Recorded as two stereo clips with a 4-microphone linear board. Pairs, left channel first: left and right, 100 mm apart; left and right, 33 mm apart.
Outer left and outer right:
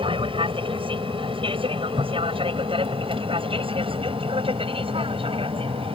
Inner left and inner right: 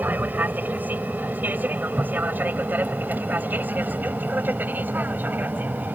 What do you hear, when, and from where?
0.0 s an aircraft: 60° right (ahead or behind); by 6.0 s 65° right (ahead or behind)